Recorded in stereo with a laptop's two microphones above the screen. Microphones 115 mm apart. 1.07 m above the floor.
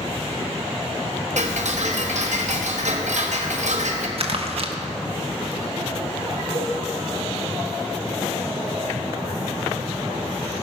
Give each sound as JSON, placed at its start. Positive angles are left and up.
{"t": 1.4, "sound": "ticking", "side_deg": -85, "distance_m": 1.1}
{"t": 4.2, "sound": "crumpling", "side_deg": -55, "distance_m": 1.1}
{"t": 6.5, "sound": "a cowbell", "side_deg": -80, "distance_m": 1.3}